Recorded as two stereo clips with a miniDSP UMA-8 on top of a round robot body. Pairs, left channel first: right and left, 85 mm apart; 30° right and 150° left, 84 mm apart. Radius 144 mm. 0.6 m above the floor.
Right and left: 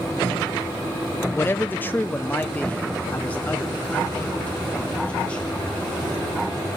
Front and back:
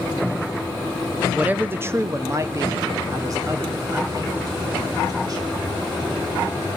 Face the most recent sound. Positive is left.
turn(degrees=-165)